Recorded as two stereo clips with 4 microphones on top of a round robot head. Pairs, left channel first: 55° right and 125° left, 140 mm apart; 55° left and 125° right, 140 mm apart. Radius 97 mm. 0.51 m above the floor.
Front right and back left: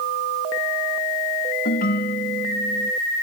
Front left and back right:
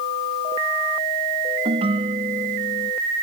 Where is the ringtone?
70° right.